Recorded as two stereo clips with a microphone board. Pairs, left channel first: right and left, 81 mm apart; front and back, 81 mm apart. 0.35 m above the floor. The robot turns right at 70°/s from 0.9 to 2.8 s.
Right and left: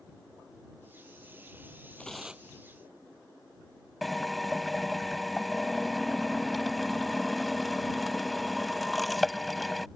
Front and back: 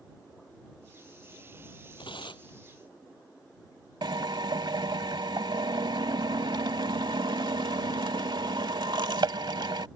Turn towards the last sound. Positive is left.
turn(degrees=180)